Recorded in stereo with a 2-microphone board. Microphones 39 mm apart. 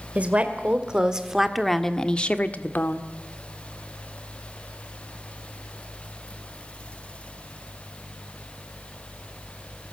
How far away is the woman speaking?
About 2.5 m.